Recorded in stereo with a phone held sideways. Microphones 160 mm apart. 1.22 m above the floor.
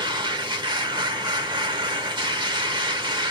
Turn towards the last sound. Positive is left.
turn(degrees=-30)  # may be behind; listen again after turning